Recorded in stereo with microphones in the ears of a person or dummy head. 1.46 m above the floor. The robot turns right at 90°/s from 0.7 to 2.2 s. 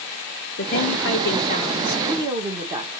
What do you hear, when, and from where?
0.6 s a woman speaking: 65° left, 1.6 m; by 2.9 s 160° right, 1.6 m